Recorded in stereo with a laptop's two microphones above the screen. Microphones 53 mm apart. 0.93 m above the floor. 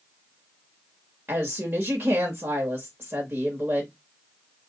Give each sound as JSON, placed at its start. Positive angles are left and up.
{"t": 1.3, "sound": "a woman speaking", "side_deg": -35, "distance_m": 1.3}